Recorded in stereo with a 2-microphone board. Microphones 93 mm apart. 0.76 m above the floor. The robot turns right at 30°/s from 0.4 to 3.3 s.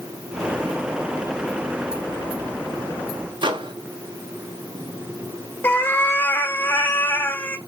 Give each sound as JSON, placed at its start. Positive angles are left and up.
{"t": 3.4, "sound": "a microwave", "side_deg": -60, "distance_m": 0.6}
{"t": 5.6, "sound": "a cat meowing", "side_deg": 20, "distance_m": 0.6}